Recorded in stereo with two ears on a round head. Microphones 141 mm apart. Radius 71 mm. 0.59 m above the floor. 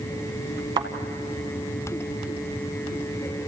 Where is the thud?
30° right (ahead or behind), 1.7 m.